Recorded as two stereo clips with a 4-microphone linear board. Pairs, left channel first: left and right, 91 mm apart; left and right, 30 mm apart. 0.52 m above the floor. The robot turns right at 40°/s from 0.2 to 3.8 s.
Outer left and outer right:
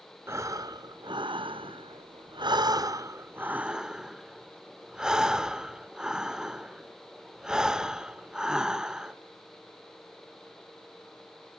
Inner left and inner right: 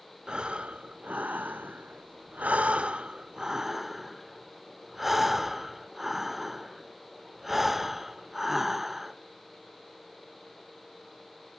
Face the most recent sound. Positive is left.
turn(degrees=-10)